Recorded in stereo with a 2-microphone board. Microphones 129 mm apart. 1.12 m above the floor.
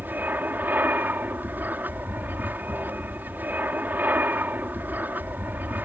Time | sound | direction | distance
0.0 | an aircraft | 15° right (ahead or behind) | ?